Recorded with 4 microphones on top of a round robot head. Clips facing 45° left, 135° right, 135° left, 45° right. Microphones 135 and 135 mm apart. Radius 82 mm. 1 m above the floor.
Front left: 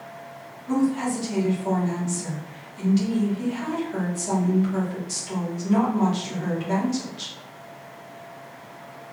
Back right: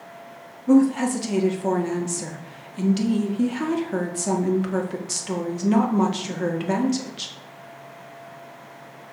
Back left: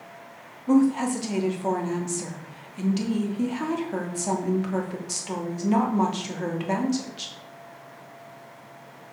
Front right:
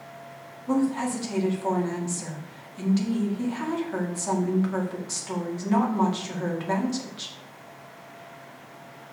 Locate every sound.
0.7 s a woman speaking: 155° right, 1.9 m